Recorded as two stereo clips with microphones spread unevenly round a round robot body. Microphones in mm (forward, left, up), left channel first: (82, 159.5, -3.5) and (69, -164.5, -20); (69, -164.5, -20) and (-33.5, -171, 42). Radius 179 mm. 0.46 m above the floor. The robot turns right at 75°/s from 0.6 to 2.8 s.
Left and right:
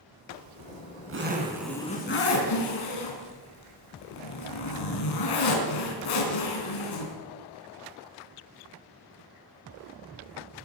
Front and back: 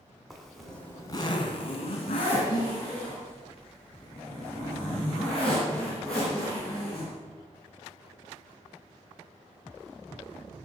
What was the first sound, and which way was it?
A zipper, 80° right.